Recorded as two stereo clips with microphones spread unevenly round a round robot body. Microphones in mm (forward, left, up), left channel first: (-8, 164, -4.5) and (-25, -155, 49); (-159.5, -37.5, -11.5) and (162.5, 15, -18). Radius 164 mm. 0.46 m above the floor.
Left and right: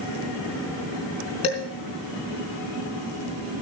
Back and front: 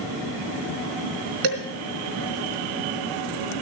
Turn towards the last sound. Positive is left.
turn(degrees=15)